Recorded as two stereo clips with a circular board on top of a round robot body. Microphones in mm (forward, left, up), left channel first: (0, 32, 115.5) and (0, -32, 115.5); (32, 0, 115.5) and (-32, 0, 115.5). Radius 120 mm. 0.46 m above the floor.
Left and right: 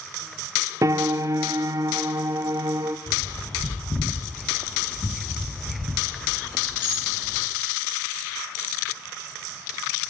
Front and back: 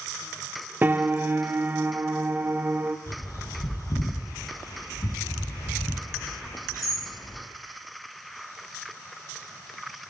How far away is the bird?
About 4 m.